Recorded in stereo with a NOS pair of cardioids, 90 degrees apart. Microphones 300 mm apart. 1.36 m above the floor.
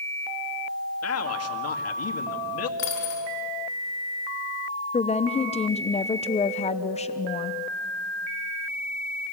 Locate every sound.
1.0 s a man speaking: 55° left, 2 m
2.8 s a dropped coin: 65° left, 6 m
4.9 s a woman speaking: 25° left, 0.8 m